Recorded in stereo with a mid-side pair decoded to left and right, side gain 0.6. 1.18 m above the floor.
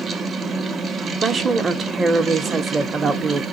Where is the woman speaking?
30° right, 0.7 m.